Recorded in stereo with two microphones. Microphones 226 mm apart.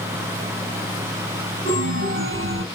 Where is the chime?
65° right (ahead or behind), 3.5 m.